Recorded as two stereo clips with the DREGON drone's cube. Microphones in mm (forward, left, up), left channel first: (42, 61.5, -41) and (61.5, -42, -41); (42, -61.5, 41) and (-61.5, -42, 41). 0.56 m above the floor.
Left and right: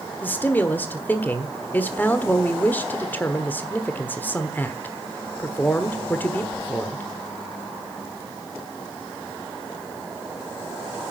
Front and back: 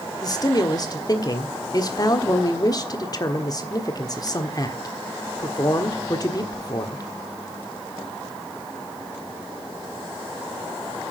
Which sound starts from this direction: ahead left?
A man speaking, at 0.2 s.